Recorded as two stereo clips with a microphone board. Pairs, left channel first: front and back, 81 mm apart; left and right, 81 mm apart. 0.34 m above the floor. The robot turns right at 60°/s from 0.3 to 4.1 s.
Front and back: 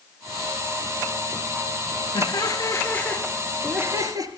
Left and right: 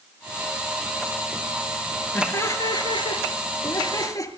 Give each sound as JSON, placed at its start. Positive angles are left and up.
{"t": 2.1, "sound": "laughter", "azimuth_deg": 20, "distance_m": 5.0}